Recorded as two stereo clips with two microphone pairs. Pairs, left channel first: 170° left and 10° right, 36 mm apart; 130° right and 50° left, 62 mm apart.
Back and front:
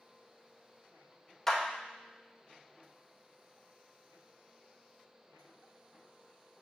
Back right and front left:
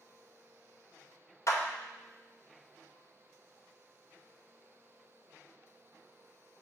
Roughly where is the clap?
Right.